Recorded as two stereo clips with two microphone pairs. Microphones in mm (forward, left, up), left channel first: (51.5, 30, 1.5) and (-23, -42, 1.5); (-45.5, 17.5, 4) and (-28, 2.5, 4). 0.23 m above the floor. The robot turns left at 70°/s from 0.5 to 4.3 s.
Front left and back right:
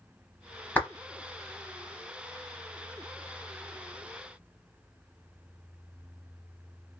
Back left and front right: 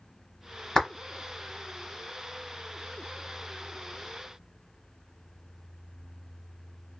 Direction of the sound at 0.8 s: 105° left.